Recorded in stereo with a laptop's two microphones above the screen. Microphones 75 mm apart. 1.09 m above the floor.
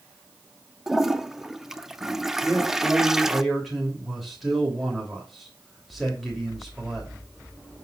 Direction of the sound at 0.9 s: 5° right (ahead or behind).